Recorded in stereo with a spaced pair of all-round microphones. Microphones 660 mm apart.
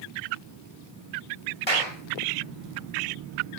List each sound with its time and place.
1.7 s a clap: 40° left (ahead or behind), 7 m